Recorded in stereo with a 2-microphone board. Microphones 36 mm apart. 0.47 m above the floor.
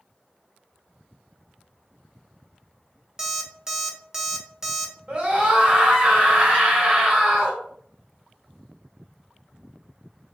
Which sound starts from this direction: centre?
An alarm clock, at 3.2 s.